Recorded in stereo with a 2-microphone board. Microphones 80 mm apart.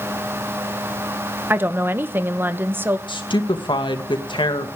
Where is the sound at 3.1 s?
85° left, 2 m.